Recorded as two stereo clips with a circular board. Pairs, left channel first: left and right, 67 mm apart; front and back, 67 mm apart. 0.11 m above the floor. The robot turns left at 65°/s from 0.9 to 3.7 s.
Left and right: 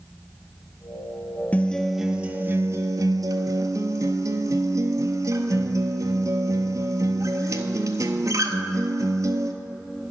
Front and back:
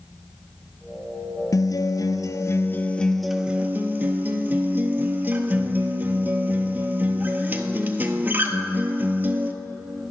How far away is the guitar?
About 0.6 m.